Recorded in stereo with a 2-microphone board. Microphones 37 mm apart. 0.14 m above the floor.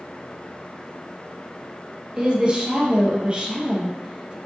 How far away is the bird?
I don't hear a bird.